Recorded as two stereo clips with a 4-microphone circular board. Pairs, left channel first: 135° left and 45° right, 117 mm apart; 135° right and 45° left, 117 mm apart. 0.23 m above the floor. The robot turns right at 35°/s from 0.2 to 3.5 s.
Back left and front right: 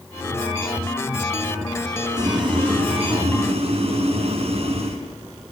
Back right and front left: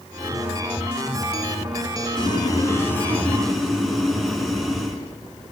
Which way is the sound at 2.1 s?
95° right.